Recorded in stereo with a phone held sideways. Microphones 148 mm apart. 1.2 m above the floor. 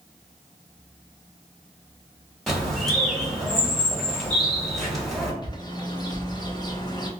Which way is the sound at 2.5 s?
Centre (ahead or behind).